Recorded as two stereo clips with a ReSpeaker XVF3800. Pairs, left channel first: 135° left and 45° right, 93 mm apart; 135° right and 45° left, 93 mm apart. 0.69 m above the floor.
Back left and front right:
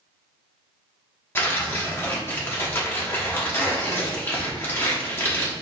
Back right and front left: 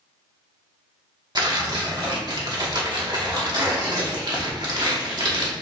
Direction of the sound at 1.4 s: 75° left.